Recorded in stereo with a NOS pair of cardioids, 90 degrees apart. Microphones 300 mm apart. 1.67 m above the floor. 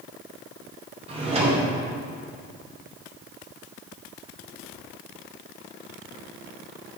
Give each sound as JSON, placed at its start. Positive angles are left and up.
{"t": 1.1, "sound": "a drawer", "azimuth_deg": -20, "distance_m": 3.0}